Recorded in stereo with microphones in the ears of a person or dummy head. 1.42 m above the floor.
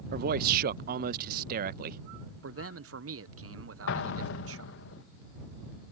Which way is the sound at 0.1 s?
50° right (ahead or behind).